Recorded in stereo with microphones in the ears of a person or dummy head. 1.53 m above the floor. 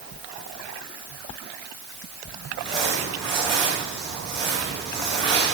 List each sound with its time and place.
2.5 s crumpling: 25° left (ahead or behind), 7 m